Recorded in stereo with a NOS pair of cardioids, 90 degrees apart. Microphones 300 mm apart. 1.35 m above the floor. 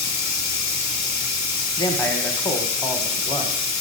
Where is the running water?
60° left, 0.8 m.